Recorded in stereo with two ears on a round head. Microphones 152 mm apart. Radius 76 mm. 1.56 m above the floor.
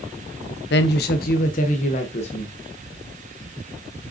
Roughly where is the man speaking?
Left.